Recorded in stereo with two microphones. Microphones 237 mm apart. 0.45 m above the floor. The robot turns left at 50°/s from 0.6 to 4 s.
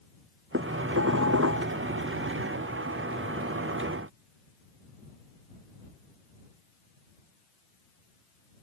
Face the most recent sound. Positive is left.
turn(degrees=135)